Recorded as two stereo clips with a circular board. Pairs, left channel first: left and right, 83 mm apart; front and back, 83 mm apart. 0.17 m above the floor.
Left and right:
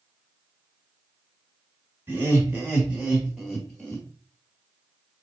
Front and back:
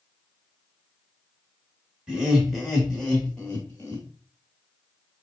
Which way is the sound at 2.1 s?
115° right.